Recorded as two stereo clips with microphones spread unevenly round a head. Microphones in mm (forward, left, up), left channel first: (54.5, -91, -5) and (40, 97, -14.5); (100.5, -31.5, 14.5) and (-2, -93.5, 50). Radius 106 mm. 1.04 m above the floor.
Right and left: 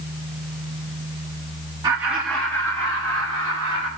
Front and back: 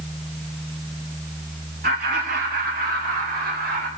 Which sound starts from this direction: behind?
Laughter, at 1.8 s.